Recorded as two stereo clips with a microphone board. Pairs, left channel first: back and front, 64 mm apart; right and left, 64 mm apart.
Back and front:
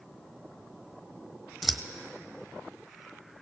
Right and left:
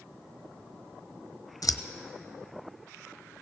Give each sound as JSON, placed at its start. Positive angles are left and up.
{"t": 1.6, "sound": "scissors", "azimuth_deg": -85, "distance_m": 1.1}